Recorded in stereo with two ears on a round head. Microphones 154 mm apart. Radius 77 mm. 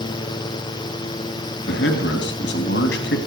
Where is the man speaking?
75° left (ahead or behind), 2.5 m.